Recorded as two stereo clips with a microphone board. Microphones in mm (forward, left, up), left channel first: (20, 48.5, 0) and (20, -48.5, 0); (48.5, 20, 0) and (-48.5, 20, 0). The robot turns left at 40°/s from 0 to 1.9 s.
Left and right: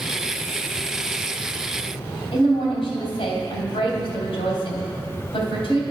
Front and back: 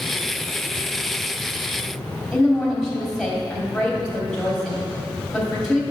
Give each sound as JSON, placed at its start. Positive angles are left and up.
{"t": 2.3, "sound": "a woman speaking", "azimuth_deg": 90, "distance_m": 2.5}